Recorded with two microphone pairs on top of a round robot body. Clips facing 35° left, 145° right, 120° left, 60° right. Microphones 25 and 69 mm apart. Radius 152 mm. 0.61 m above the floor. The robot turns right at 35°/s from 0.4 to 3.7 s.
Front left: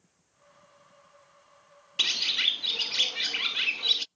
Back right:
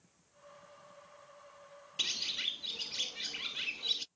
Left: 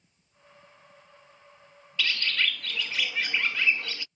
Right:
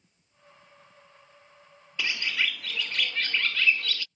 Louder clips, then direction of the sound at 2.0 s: Front left 9 dB, left 1 dB; straight ahead.